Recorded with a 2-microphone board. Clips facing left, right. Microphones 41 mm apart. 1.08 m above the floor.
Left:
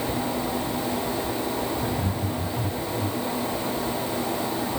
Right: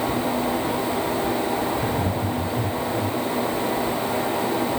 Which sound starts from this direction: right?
Laughter, at 1.8 s.